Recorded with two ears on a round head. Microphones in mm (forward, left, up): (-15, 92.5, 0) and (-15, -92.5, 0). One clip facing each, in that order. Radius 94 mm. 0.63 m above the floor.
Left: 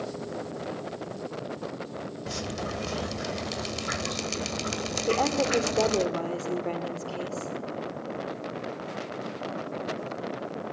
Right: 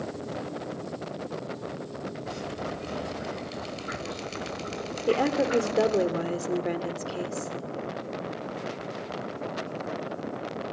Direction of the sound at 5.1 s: 15° right (ahead or behind).